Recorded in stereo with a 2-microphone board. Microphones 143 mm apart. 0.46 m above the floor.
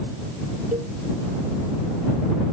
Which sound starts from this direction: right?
A cowbell, at 0.7 s.